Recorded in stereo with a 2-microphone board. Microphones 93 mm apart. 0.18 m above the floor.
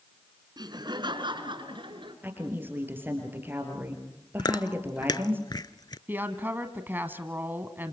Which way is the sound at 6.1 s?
20° right (ahead or behind).